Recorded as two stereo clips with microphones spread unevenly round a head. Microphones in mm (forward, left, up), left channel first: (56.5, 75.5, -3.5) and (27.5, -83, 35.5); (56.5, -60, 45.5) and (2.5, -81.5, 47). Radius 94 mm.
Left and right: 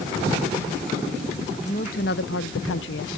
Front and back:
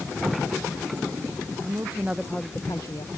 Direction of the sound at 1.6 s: 140° left.